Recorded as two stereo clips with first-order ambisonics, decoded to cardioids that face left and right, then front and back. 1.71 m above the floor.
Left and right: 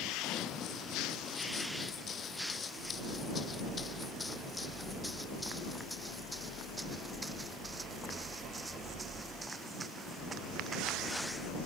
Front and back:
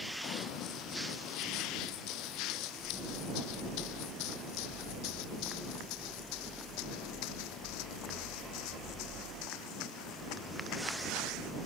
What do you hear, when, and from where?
0.2 s running footsteps: 40° left; by 11.5 s 25° right